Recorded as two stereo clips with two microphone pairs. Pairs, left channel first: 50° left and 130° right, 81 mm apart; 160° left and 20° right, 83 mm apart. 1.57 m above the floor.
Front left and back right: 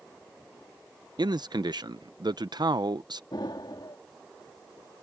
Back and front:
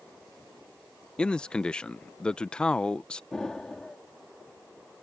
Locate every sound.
1.2 s a man speaking: 125° right
3.3 s an explosion: 75° left